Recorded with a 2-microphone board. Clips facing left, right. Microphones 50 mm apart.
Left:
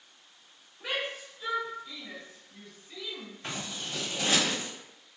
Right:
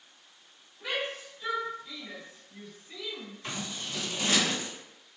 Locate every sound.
0.8 s a shout: 15° left (ahead or behind), 1.1 m; by 3.3 s 10° right (ahead or behind), 1.5 m
3.4 s scissors: 35° left (ahead or behind), 1.9 m